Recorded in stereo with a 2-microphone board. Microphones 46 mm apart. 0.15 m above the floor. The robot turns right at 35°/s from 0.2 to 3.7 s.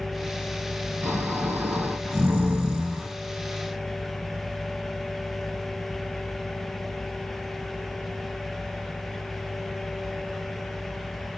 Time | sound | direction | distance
1.0 | snoring | 85° right | 2 m